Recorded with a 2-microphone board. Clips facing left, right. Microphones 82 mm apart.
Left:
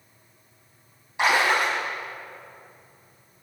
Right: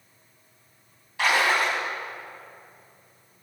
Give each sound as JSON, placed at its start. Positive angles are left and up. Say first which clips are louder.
{"t": 1.2, "sound": "a splash", "louder": "left 1 dB", "side_deg": 20, "distance_m": 3.5}